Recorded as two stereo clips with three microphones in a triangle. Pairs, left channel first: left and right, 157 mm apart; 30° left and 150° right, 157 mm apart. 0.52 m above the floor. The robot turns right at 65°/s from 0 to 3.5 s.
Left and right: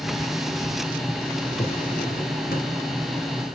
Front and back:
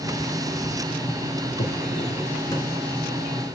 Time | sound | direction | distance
1.6 | a drawer | 35° left | 2.5 m